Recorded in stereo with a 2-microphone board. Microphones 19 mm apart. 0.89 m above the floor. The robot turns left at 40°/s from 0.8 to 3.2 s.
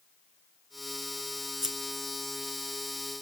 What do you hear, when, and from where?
1.6 s scissors: 20° right (ahead or behind), 2.5 m; by 2.0 s 35° right (ahead or behind), 2.5 m